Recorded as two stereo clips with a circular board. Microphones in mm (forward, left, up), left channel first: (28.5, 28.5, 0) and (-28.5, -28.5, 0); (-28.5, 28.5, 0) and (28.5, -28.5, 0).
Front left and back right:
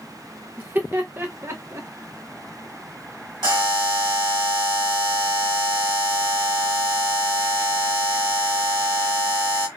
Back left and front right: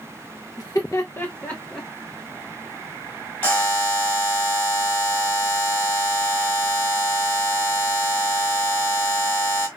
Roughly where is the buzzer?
Behind.